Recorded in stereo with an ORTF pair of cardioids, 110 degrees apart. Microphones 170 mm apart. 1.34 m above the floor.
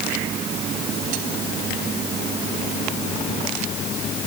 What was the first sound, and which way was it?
Only background noise.